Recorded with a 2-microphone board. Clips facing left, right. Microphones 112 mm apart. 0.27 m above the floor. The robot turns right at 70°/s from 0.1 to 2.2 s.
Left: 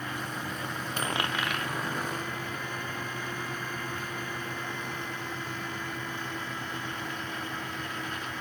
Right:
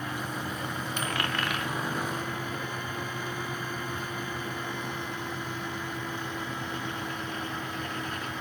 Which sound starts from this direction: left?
A dropped coin, at 1.0 s.